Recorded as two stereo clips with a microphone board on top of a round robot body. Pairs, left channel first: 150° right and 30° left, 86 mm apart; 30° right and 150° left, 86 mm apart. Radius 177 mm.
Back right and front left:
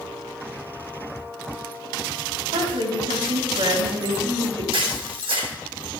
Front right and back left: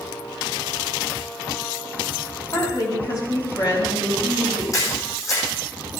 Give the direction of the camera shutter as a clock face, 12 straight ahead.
11 o'clock.